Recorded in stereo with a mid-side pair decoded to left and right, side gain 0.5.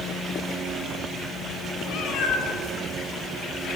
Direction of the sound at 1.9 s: 65° left.